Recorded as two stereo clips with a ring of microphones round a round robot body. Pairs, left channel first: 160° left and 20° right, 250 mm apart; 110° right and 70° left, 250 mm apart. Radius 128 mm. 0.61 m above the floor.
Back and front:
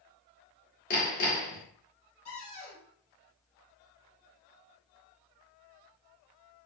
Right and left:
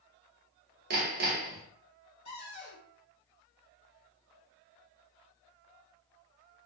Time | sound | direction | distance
0.9 | hammering | 110° left | 0.8 m
2.2 | a cupboard door | straight behind | 1.9 m